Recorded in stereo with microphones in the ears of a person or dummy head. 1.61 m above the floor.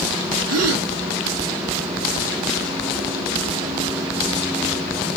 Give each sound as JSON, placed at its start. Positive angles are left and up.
{"t": 0.5, "sound": "a gasp", "side_deg": -90, "distance_m": 0.7}